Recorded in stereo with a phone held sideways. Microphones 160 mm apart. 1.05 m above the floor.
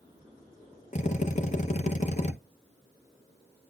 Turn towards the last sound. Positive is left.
turn(degrees=45)  # may be behind; listen again after turning